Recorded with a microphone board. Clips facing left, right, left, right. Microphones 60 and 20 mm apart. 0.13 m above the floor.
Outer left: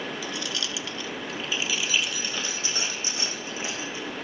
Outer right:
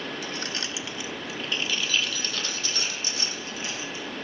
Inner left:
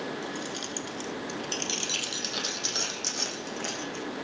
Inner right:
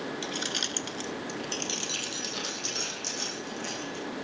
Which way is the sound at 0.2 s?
50° right (ahead or behind).